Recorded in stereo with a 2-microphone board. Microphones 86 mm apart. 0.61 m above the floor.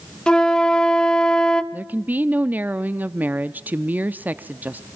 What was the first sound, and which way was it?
A flute, 10° left (ahead or behind).